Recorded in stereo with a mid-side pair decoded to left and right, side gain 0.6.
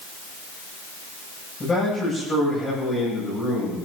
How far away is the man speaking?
About 9 m.